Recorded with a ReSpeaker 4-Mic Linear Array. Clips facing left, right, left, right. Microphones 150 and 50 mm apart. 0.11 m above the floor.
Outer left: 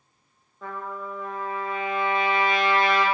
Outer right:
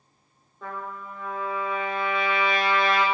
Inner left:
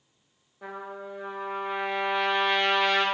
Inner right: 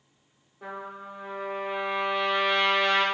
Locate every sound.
0.6 s a trumpet: centre (ahead or behind), 0.7 m